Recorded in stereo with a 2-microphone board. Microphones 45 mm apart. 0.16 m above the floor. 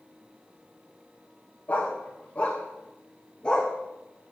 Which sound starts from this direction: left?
A dog barking, at 1.7 s.